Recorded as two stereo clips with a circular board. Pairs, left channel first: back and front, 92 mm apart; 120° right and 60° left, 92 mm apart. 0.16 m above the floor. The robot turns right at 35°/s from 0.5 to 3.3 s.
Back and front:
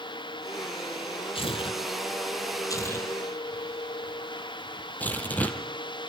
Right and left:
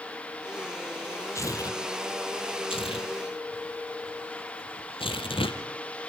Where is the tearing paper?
175° right, 1.5 m; by 5.6 s 110° right, 1.5 m.